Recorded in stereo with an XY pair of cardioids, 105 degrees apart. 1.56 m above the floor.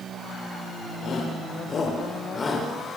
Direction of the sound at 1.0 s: 55° left.